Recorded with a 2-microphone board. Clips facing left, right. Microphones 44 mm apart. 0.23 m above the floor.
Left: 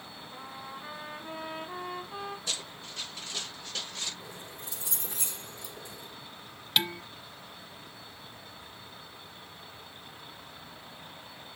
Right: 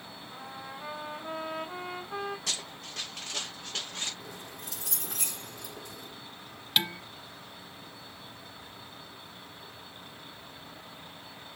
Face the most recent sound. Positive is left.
turn(degrees=0)  # may be behind; listen again after turning